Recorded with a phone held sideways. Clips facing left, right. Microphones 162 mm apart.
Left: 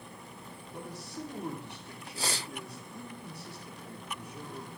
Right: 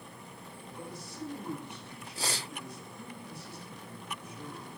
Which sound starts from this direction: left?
A man speaking, at 0.7 s.